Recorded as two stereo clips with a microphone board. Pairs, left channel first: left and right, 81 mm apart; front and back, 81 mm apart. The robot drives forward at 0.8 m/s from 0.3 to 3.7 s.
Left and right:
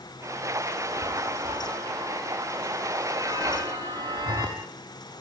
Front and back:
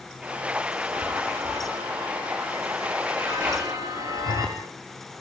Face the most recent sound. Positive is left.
turn(degrees=-135)